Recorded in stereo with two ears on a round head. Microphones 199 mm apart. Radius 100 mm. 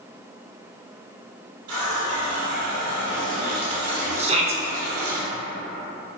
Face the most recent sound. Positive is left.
turn(degrees=-30)  # may be behind; listen again after turning